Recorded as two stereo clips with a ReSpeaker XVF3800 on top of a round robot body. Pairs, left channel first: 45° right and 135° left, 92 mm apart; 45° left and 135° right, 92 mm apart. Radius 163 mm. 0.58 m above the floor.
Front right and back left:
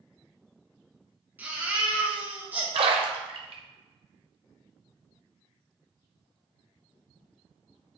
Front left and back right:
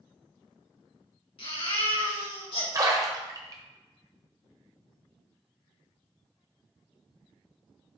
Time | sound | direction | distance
1.4 | a baby crying | 65° left | 3.5 m
2.7 | a splash | 165° left | 0.9 m